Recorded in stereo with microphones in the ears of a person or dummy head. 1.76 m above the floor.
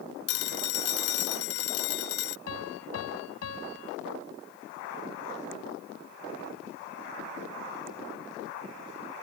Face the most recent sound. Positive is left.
turn(degrees=90)